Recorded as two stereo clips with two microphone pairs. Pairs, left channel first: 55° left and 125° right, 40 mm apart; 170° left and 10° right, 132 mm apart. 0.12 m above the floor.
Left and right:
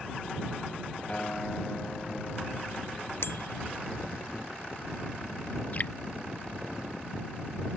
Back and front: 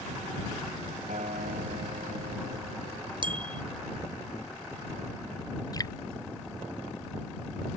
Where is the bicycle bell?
40° left.